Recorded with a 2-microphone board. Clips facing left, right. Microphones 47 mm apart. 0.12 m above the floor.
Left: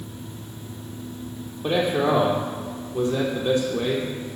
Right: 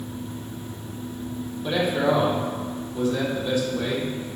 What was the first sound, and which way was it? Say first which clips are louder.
A man speaking: left 1 dB; 65° left (ahead or behind).